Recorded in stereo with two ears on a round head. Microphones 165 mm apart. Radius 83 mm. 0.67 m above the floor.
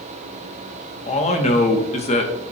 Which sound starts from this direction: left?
A man speaking, at 1.1 s.